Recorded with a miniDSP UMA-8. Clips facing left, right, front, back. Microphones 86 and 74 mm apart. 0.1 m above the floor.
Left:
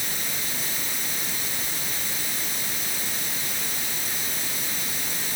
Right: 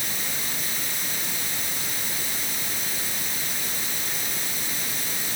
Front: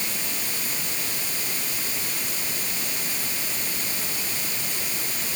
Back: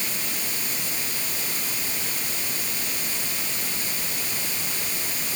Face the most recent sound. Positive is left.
No sound to turn to.